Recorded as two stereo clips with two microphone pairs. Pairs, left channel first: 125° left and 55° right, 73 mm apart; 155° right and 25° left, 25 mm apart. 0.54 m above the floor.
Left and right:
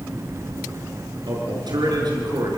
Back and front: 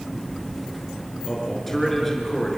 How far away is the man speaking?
About 6.5 m.